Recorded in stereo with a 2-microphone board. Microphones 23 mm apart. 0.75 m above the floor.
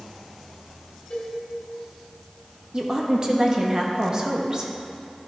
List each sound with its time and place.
1.1 s a cowbell: 55° left (ahead or behind), 2 m
2.7 s a woman speaking: 25° right (ahead or behind), 0.8 m